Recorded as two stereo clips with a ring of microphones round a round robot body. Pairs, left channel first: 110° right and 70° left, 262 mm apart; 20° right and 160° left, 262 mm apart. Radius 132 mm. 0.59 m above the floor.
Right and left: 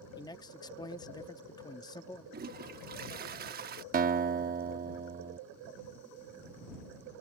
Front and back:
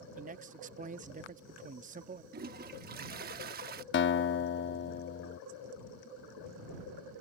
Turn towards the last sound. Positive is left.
turn(degrees=15)